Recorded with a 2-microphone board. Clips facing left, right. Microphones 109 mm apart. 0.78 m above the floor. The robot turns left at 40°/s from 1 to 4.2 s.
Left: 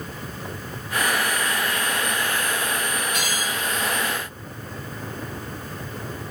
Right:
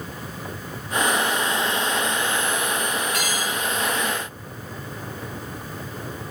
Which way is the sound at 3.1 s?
25° left (ahead or behind).